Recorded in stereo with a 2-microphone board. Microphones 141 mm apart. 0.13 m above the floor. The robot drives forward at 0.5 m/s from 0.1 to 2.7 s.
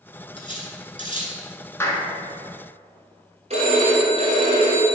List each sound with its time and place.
0.4 s cutlery clinking: 35° left (ahead or behind), 1.1 m; by 1.4 s 40° left (ahead or behind), 1.0 m
1.8 s a clap: 20° left (ahead or behind), 0.9 m
3.5 s a phone ringing: 50° right (ahead or behind), 2 m